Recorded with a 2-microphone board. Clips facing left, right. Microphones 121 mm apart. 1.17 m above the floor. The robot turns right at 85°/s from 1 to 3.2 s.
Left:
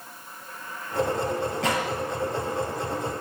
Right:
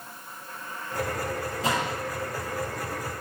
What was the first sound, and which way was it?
A gunshot, 70° left (ahead or behind).